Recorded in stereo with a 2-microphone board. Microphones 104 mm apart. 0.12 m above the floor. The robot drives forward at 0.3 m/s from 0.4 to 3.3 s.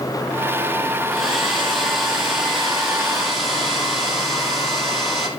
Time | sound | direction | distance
1.1 | a hair dryer | centre (ahead or behind) | 2.5 m